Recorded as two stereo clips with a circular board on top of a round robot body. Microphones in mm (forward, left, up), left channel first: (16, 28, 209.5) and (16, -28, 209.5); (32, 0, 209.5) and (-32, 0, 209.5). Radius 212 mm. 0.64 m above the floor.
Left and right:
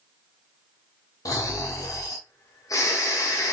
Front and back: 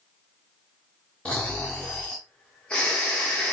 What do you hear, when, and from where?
1.2 s snoring: 70° left, 0.9 m